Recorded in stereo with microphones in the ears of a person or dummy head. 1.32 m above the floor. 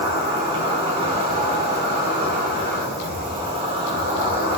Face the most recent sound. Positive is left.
turn(degrees=-30)  # may be behind; listen again after turning